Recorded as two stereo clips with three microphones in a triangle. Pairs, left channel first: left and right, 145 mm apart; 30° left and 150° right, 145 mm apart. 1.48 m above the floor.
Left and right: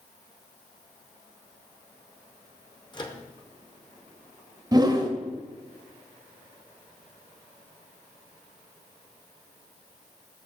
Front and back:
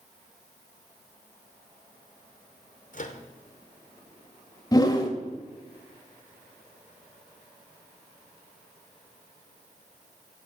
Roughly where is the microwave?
Ahead left.